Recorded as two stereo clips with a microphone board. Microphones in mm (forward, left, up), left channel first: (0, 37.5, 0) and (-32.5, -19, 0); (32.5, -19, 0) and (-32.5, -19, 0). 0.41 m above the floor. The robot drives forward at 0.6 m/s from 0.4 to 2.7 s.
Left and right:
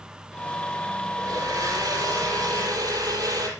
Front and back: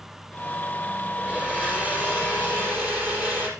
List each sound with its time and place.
1.2 s a blender: 110° right, 4.5 m; by 3.5 s 120° right, 5 m